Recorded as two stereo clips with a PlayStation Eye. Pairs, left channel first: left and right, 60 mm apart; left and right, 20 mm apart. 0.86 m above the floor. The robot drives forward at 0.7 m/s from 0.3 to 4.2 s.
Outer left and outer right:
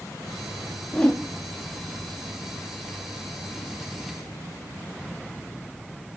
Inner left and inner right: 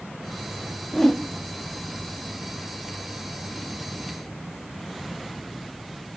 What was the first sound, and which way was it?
A whoosh, 15° left (ahead or behind).